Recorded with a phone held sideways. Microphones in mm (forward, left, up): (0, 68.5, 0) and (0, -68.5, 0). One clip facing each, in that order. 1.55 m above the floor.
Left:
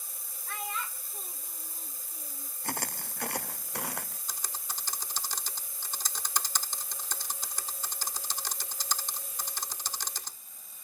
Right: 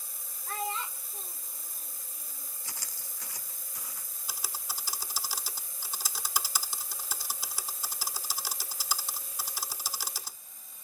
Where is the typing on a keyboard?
10° right (ahead or behind).